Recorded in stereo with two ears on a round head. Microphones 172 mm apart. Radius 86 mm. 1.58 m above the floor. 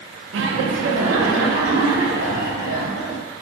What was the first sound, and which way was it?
Laughter, 60° right (ahead or behind).